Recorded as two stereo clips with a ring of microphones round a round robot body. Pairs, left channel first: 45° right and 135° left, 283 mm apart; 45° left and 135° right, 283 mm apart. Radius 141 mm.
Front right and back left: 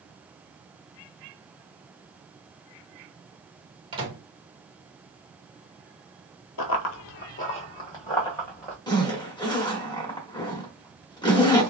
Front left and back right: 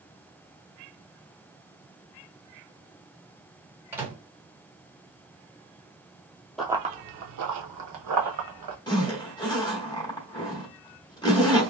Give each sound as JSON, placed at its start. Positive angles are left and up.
{"t": 3.9, "sound": "a microwave", "azimuth_deg": 160, "distance_m": 1.0}
{"t": 6.6, "sound": "running footsteps", "azimuth_deg": -45, "distance_m": 0.5}
{"t": 8.9, "sound": "a zipper", "azimuth_deg": 0, "distance_m": 1.0}